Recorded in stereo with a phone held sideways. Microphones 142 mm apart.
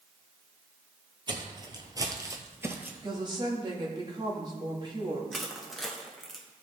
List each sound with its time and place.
1.3 s footsteps: 35° right (ahead or behind), 1.3 m; by 2.9 s 15° right (ahead or behind), 1.2 m
3.0 s a woman speaking: 30° right (ahead or behind), 1.8 m
5.3 s crushing: centre (ahead or behind), 1.3 m